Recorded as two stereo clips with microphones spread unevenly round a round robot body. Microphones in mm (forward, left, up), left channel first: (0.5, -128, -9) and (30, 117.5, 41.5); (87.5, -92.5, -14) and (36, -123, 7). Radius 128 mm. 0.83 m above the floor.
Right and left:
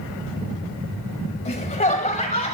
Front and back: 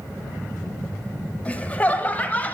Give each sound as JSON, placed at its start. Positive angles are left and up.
{"t": 1.4, "sound": "laughter", "azimuth_deg": -35, "distance_m": 4.5}